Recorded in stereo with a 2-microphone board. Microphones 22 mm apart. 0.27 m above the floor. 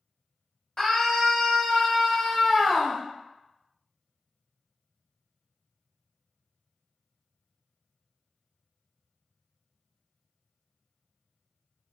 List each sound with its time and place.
0.8 s a scream: 35° left (ahead or behind), 1.1 m